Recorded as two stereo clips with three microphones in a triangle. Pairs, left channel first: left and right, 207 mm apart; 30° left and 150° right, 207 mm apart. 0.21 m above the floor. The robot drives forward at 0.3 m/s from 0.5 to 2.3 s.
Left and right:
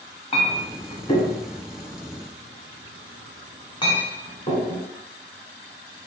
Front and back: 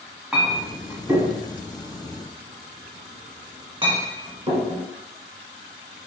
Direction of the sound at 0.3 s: 125° left.